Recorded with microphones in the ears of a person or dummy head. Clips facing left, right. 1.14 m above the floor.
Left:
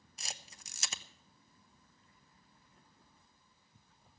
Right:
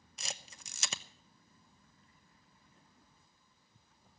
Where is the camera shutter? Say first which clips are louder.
Right 3 dB; 55° right (ahead or behind), 0.9 m.